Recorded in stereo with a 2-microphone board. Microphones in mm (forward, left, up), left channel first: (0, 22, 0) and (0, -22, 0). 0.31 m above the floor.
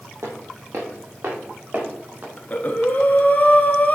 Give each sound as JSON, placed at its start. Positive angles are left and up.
{"t": 0.2, "sound": "footsteps", "side_deg": -80, "distance_m": 2.0}
{"t": 2.4, "sound": "breathing", "side_deg": 35, "distance_m": 0.7}